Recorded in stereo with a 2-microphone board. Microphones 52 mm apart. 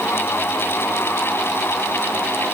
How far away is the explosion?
No explosion in this recording.